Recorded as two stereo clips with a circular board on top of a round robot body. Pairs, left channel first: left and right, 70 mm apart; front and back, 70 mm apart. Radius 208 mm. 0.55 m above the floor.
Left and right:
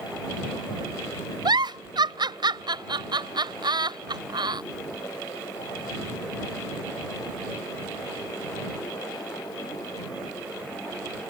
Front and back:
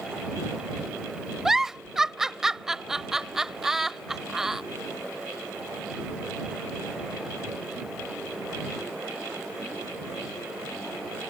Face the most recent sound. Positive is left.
turn(degrees=-95)